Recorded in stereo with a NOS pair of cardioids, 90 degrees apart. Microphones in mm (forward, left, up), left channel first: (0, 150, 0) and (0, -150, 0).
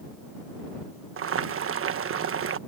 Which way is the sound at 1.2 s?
45° right.